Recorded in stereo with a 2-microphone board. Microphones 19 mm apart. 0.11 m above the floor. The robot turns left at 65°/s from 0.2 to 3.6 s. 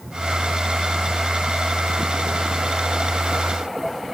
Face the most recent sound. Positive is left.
No sound to turn to.